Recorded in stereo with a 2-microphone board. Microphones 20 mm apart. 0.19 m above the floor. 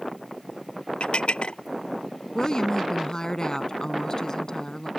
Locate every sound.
1.0 s dishes clattering: 70° left (ahead or behind)
2.4 s a woman speaking: 35° left (ahead or behind)